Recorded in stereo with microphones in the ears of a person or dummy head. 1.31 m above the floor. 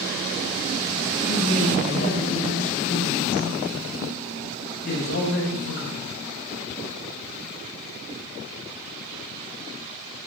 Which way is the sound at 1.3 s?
50° left (ahead or behind).